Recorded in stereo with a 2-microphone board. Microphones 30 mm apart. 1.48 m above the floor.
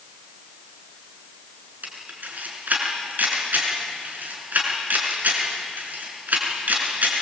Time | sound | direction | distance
1.8 | a camera shutter | 70° right (ahead or behind) | 6.5 m